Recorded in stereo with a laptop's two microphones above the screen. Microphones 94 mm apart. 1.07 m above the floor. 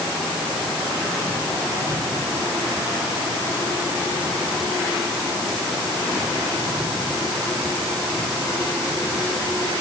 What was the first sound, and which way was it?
Only background noise.